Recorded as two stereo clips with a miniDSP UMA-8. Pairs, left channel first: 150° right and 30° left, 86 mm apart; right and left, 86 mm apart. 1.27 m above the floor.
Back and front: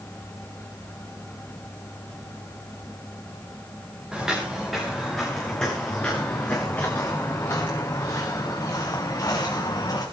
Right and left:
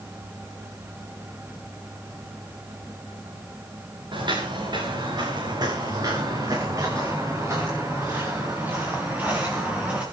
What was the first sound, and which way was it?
Footsteps, 110° left.